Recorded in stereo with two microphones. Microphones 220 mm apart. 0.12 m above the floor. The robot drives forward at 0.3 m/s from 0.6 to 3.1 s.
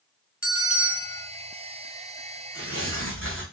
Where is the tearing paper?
75° right (ahead or behind), 1.5 m; by 3.4 s 70° right (ahead or behind), 1.6 m.